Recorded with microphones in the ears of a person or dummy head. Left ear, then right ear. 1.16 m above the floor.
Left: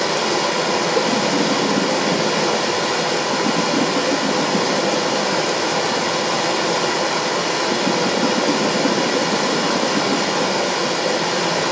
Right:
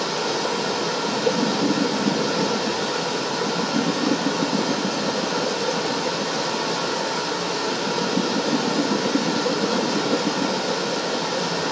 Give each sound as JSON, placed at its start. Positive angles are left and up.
{"t": 0.0, "sound": "running water", "side_deg": 55, "distance_m": 1.0}